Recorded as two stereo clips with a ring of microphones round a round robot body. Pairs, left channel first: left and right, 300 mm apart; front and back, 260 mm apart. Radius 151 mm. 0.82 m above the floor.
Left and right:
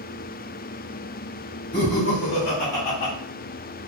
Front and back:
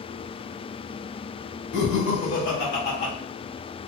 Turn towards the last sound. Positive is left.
turn(degrees=65)